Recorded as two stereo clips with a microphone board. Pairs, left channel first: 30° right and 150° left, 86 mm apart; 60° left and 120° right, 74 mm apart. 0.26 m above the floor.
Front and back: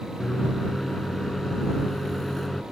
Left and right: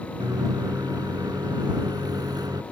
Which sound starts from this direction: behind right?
A microwave, at 0.2 s.